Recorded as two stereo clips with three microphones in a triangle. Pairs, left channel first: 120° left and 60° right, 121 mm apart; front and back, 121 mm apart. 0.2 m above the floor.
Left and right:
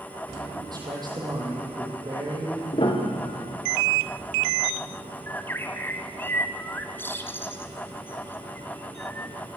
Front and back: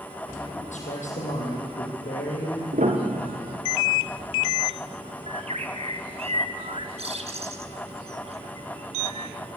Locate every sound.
0.7 s a man speaking: 5° right, 8 m
2.7 s a piano: 165° left, 4 m
5.3 s a bird: 170° right, 1.5 m